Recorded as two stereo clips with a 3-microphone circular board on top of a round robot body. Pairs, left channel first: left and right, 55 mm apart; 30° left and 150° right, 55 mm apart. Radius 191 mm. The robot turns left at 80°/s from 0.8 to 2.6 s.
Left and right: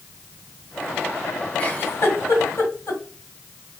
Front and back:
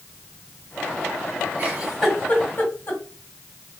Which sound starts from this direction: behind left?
A giggle, at 1.6 s.